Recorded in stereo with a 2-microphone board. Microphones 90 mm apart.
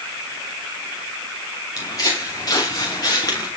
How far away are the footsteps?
About 8 m.